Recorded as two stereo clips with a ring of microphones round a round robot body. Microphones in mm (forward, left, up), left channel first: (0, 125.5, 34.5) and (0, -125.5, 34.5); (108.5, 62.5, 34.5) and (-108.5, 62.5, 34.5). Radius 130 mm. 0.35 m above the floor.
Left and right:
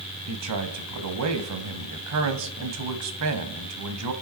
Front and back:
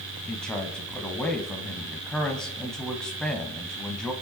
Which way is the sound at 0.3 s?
85° right.